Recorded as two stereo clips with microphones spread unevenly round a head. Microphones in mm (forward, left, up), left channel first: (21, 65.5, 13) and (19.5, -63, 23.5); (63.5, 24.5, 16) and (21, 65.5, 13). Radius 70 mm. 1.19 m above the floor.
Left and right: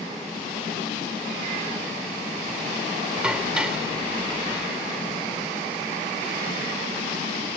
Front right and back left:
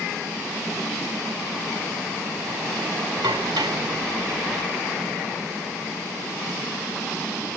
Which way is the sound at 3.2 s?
175° right.